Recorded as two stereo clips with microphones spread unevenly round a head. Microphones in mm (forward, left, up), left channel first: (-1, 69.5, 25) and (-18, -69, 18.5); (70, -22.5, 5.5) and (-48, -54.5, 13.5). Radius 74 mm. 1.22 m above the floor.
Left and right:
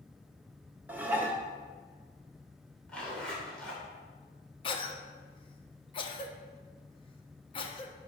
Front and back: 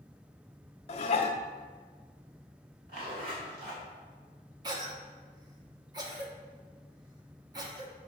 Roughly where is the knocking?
No knocking in this recording.